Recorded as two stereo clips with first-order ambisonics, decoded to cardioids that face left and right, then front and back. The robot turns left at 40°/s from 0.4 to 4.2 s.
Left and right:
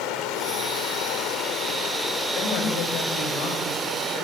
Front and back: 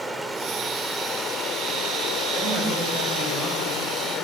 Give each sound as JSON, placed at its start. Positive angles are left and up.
{"t": 0.0, "sound": "running water", "azimuth_deg": 100, "distance_m": 2.5}
{"t": 2.4, "sound": "a woman speaking", "azimuth_deg": 115, "distance_m": 7.5}